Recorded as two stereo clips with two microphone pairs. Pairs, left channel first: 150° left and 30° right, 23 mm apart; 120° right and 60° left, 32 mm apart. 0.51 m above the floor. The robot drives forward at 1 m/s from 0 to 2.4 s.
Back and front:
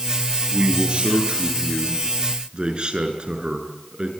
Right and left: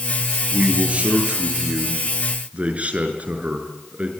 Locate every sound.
0.5 s a man speaking: 15° left, 8.5 m; by 4.1 s 20° left, 6.5 m